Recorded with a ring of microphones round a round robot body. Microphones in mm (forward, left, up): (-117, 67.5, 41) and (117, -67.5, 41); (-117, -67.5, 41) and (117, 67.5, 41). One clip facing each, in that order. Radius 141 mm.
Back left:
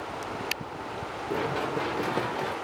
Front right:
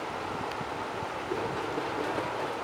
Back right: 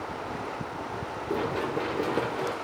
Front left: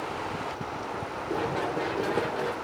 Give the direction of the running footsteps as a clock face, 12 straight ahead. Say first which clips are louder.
Back left 3 dB, back right 1 dB; 7 o'clock.